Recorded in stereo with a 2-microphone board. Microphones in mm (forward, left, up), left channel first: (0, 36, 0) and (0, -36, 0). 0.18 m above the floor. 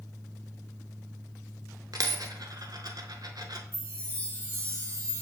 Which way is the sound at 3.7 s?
30° right (ahead or behind).